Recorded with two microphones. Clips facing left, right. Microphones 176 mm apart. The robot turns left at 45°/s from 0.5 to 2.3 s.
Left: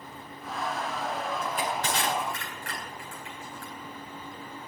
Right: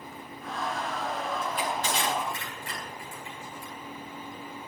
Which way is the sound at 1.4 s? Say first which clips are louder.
Even; 35° left (ahead or behind).